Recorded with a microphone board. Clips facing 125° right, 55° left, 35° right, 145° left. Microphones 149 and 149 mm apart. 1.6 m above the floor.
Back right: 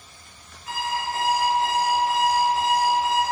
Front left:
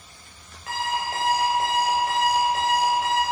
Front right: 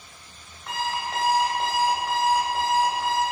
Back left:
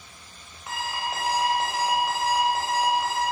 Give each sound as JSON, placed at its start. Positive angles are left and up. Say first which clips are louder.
{"t": 0.7, "sound": "an alarm clock", "louder": "even, front right 2 dB", "azimuth_deg": 60, "distance_m": 4.0}